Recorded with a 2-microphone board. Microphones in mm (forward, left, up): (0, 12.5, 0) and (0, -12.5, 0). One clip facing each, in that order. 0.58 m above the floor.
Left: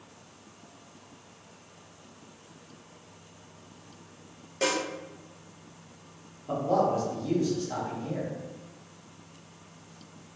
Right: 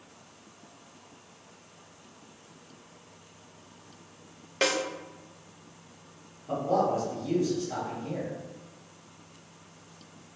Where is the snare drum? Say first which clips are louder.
Right 1 dB; 55° right (ahead or behind), 0.5 m.